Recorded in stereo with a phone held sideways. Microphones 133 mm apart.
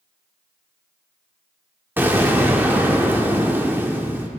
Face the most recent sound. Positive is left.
turn(degrees=-15)  # may be behind; listen again after turning